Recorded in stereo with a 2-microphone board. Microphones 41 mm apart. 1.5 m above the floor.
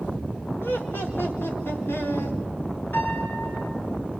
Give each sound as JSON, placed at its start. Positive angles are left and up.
{"t": 0.6, "sound": "laughter", "side_deg": 70, "distance_m": 4.0}
{"t": 2.9, "sound": "a piano", "side_deg": 50, "distance_m": 7.5}